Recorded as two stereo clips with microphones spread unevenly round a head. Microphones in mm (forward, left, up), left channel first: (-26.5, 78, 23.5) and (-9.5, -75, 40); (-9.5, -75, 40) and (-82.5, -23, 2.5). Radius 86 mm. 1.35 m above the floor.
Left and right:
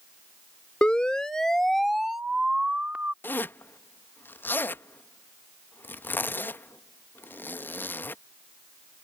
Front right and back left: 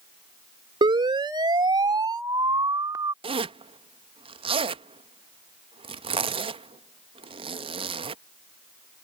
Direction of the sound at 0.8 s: Straight behind.